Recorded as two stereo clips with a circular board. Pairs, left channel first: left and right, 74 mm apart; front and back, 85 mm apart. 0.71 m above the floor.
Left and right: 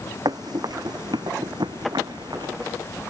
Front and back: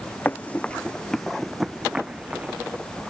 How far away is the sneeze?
I don't hear a sneeze.